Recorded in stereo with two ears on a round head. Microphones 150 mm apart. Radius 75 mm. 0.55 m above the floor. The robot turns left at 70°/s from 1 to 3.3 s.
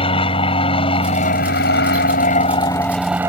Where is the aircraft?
140° left; by 3.3 s 20° right.